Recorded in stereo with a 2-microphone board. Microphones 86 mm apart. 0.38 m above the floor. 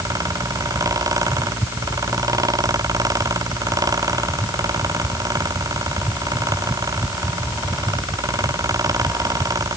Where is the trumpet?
No trumpet in this recording.